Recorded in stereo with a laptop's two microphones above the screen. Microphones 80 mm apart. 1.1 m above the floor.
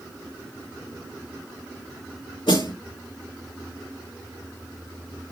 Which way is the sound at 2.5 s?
85° left.